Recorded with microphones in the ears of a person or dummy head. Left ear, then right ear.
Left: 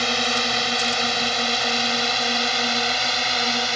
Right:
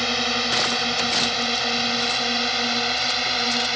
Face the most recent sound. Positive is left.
turn(degrees=15)  # may be behind; listen again after turning